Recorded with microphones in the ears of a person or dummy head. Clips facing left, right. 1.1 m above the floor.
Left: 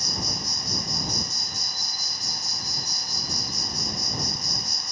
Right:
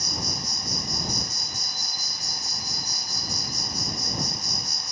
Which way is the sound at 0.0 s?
65° right (ahead or behind).